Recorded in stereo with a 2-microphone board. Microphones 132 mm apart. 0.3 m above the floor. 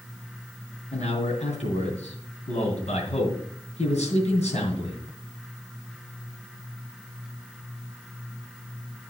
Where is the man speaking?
55° left (ahead or behind), 3 m.